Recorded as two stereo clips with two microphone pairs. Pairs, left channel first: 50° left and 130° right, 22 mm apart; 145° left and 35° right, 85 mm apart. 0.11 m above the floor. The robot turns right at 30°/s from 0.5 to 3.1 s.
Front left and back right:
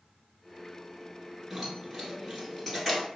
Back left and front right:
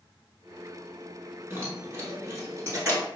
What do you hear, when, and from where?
1.5 s keys jangling: 60° right, 1.1 m; by 3.1 s 10° right, 1.1 m